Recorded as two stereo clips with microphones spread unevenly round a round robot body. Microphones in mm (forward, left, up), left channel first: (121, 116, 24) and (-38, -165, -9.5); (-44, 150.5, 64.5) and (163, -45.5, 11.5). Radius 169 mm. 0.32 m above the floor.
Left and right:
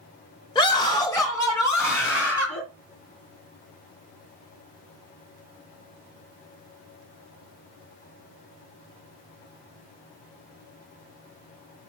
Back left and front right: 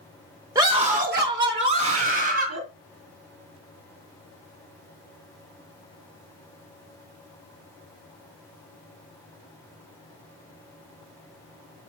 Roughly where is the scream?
Ahead.